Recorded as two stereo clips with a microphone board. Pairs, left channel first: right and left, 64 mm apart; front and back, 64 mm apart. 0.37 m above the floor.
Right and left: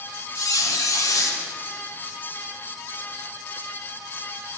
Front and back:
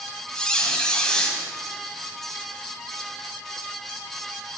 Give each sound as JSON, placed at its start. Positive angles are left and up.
{"t": 0.3, "sound": "a squeak", "azimuth_deg": -75, "distance_m": 1.0}